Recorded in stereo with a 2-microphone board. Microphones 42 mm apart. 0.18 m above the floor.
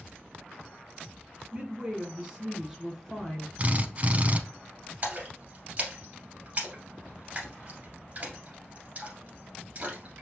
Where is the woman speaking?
35° right (ahead or behind), 1.9 m; by 3.5 s centre (ahead or behind), 1.6 m.